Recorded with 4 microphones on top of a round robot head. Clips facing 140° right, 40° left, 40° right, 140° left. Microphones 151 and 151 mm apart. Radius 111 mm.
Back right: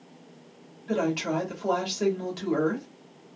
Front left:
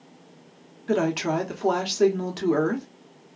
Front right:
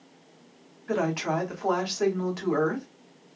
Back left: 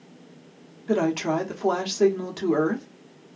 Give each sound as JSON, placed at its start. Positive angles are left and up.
{"t": 0.9, "sound": "a woman speaking", "azimuth_deg": 75, "distance_m": 0.9}